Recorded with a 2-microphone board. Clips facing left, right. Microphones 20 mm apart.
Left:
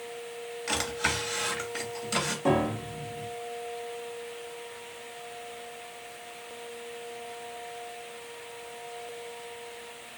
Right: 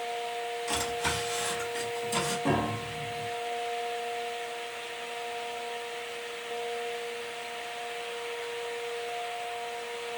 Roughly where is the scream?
I don't hear a scream.